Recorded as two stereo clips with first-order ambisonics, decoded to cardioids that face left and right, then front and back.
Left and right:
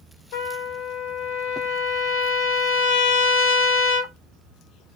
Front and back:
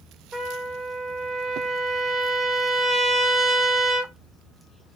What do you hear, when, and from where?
0.3 s a trumpet: 100° left, 1.0 m